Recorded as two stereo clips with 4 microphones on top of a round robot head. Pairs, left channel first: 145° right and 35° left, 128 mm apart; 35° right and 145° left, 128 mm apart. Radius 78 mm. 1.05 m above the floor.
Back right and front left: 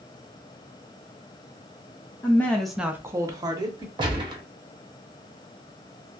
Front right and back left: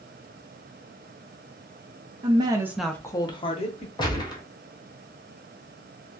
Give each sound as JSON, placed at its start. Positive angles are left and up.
{"t": 2.2, "sound": "a woman speaking", "azimuth_deg": 150, "distance_m": 0.6}
{"t": 4.0, "sound": "a gunshot", "azimuth_deg": 5, "distance_m": 0.9}